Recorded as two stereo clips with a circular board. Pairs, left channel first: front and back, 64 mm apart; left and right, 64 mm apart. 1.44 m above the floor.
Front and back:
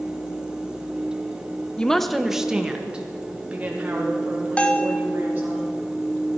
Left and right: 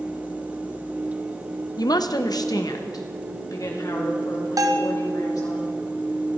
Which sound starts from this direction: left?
A woman speaking, at 1.8 s.